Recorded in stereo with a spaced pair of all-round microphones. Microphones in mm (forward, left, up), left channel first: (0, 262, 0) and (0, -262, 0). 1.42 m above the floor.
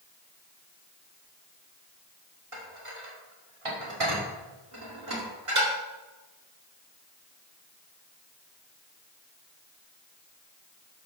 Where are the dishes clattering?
80° right, 2.5 m.